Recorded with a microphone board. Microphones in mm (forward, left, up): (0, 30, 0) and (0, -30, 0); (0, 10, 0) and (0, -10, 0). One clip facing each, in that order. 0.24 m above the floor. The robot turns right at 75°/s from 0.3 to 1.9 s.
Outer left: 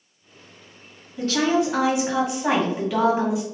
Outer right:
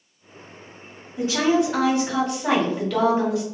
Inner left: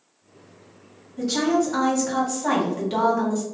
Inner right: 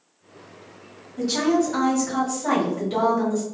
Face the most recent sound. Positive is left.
turn(degrees=20)